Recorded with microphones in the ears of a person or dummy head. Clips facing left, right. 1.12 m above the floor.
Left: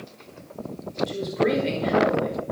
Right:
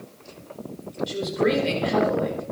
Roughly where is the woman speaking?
Centre.